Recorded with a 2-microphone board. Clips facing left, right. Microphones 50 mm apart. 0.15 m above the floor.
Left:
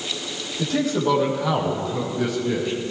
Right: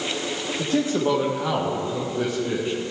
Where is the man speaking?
30° right (ahead or behind), 5 m.